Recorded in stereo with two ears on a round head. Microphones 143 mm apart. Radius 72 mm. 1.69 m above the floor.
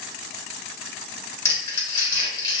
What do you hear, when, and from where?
1.4 s crumpling: 20° left (ahead or behind), 1.8 m